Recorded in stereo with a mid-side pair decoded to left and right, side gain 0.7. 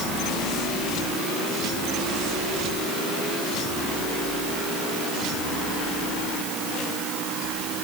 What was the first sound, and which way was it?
Only background noise.